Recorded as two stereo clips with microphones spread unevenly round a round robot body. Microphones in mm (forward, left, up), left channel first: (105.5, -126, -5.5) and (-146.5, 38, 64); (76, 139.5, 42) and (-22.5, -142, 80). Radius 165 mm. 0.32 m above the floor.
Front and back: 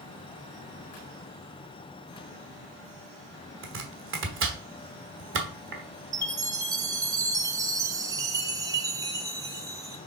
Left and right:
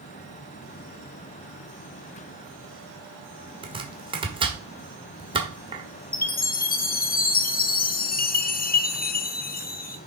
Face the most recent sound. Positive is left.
turn(degrees=55)